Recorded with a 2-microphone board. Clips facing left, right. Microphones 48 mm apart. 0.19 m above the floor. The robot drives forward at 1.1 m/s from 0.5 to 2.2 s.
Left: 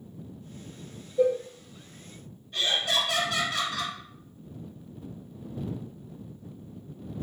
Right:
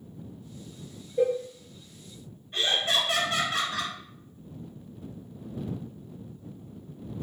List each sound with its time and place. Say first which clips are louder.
1.2 s a cowbell: left 1 dB; 60° right (ahead or behind), 1.9 m
2.5 s laughter: right 1 dB; 30° right (ahead or behind), 2.0 m